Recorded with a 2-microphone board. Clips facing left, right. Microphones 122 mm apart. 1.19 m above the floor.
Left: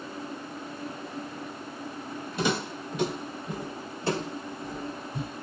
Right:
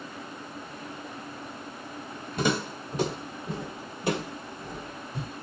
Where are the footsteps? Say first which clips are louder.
Right 1 dB; 45° right (ahead or behind), 1.8 m; by 5.3 s 10° left (ahead or behind), 1.4 m.